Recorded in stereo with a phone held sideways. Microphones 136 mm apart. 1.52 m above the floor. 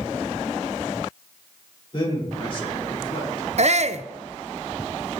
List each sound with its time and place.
1.9 s a man speaking: 40° left (ahead or behind), 4 m
3.6 s a shout: 55° right (ahead or behind), 0.5 m